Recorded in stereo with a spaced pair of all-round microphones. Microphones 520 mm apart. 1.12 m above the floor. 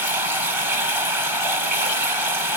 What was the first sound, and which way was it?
Running water, 55° right (ahead or behind).